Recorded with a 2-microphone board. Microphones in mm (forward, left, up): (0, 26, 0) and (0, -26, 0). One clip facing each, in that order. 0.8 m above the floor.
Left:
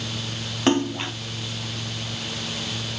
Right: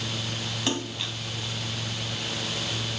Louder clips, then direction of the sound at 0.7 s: Left 11 dB; 45° left (ahead or behind).